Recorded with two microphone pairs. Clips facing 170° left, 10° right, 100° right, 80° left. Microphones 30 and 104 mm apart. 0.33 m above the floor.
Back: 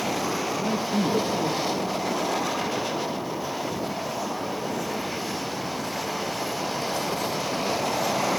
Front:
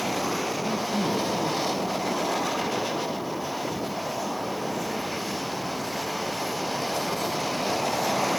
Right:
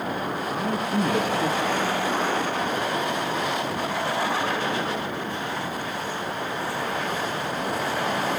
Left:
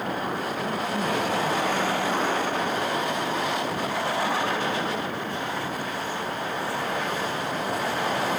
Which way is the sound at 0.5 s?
125° right.